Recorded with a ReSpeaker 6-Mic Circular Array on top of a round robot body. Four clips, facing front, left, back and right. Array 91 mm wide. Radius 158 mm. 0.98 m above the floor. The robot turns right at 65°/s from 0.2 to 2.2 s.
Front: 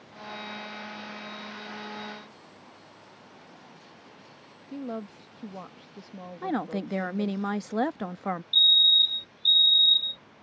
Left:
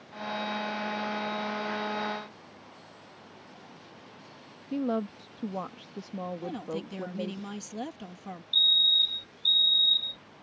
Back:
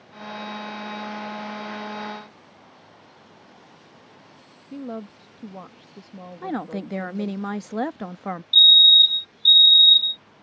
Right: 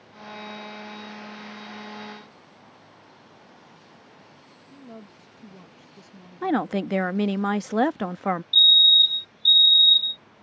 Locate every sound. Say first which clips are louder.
4.7 s a woman speaking: left 15 dB, back 2 dB; 95° left
6.4 s a woman speaking: right 11 dB, back 1 dB; 90° right
8.5 s a fire alarm: right 8 dB, back 7 dB; 30° left